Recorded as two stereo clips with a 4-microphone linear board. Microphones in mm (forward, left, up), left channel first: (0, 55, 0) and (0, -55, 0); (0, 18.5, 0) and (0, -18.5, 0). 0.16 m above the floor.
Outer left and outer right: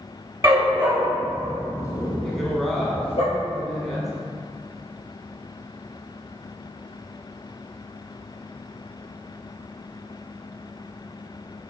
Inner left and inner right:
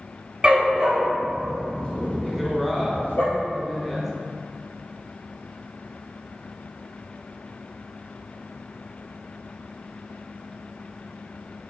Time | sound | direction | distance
0.4 | a dog barking | 30° right (ahead or behind) | 1.4 m
2.2 | a woman speaking | centre (ahead or behind) | 1.0 m